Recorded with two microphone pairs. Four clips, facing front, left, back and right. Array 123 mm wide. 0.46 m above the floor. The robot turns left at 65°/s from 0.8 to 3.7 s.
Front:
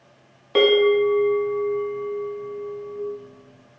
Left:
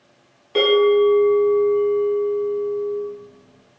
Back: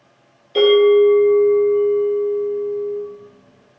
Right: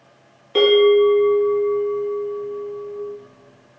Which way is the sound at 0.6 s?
5° left.